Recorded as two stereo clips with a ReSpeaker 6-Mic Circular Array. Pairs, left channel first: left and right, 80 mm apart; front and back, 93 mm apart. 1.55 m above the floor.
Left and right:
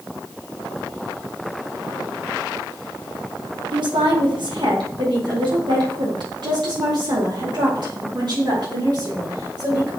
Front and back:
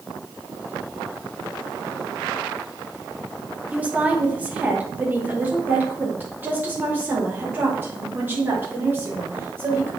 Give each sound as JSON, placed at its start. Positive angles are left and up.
{"t": 3.7, "sound": "a woman speaking", "azimuth_deg": -105, "distance_m": 1.7}